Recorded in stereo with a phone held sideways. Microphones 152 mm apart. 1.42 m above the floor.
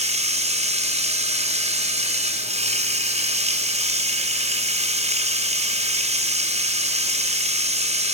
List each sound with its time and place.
0.0 s running water: 45° right (ahead or behind), 3 m